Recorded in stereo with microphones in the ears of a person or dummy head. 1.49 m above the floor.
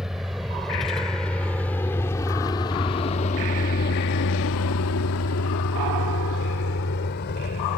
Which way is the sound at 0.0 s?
5° right (ahead or behind).